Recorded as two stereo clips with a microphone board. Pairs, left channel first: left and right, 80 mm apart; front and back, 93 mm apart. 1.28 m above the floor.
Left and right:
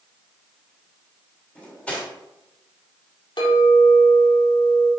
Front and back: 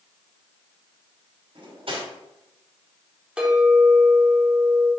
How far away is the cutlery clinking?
About 2.5 m.